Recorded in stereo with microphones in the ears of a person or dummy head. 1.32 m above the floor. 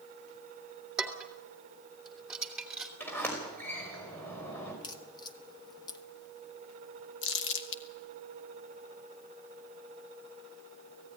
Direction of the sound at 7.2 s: 75° left (ahead or behind).